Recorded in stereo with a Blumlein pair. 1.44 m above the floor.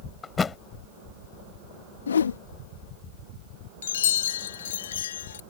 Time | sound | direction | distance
0.2 | a thud | 15° left | ?
2.1 | a whoosh | 70° left | ?
3.8 | a chime | 60° left | ?